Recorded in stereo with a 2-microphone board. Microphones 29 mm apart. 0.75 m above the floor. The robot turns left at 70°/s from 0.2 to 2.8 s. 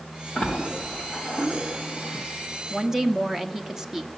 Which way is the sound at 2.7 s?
5° right (ahead or behind).